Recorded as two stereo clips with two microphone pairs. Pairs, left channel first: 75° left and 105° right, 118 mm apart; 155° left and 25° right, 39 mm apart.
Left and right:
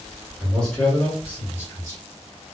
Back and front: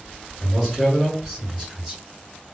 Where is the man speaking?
155° left, 1.7 m; by 2.0 s 50° left, 1.8 m.